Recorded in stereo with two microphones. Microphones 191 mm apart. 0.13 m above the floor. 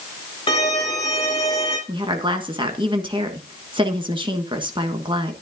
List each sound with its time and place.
0.5 s a violin: 30° left (ahead or behind), 3.5 m
1.9 s a woman speaking: 25° right (ahead or behind), 1.4 m